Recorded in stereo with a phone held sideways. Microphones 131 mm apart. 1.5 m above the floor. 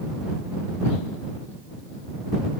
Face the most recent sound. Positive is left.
No sound to turn to.